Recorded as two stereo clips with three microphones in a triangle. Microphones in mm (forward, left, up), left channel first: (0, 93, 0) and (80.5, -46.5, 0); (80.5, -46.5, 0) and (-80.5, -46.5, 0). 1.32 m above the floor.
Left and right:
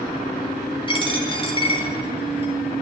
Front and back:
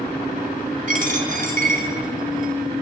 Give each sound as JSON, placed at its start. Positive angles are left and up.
{"t": 0.9, "sound": "a dropped coin", "azimuth_deg": 170, "distance_m": 1.8}